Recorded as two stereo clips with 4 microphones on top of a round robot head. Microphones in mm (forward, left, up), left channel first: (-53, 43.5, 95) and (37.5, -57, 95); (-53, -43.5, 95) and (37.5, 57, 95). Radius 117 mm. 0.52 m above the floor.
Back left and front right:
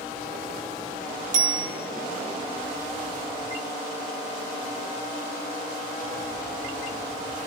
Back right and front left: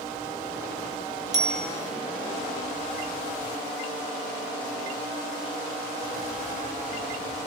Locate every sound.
1.3 s a bicycle bell: 15° right, 4.5 m